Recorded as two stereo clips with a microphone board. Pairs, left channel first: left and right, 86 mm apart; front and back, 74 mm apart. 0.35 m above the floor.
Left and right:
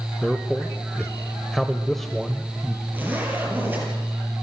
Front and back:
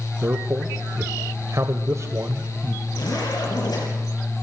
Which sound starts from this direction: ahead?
A zipper, at 2.9 s.